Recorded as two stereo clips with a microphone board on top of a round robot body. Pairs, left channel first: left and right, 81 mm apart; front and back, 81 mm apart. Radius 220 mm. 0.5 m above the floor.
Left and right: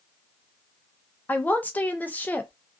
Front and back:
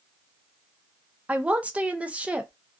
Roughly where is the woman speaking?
Behind left.